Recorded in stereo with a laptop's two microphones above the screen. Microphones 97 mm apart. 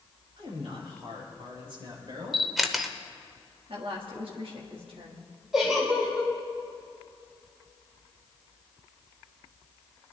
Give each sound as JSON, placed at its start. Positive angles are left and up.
{"t": 0.4, "sound": "a man speaking", "side_deg": -70, "distance_m": 4.5}
{"t": 2.3, "sound": "a camera shutter", "side_deg": 0, "distance_m": 0.7}
{"t": 3.7, "sound": "a woman speaking", "side_deg": -65, "distance_m": 1.7}
{"t": 5.5, "sound": "a giggle", "side_deg": -5, "distance_m": 2.5}